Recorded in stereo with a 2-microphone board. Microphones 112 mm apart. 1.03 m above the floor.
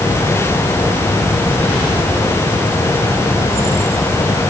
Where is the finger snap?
No finger snap in this recording.